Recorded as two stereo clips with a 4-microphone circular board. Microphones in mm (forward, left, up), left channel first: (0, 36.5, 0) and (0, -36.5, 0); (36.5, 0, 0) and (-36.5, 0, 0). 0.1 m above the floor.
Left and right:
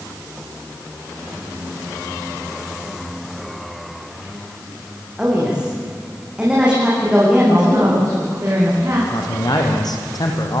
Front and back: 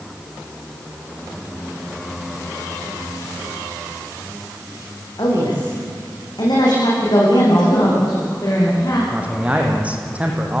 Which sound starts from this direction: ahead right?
A man speaking, at 7.5 s.